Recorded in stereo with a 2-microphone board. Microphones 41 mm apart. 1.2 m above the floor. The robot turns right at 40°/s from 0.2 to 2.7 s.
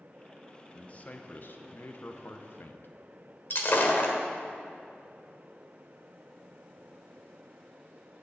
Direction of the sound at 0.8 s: 35° left.